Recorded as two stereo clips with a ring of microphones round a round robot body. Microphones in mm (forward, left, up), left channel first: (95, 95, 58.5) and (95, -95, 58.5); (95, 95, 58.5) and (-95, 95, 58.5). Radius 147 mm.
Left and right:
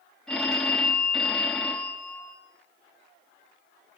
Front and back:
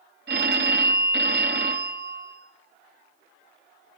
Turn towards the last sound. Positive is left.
turn(degrees=175)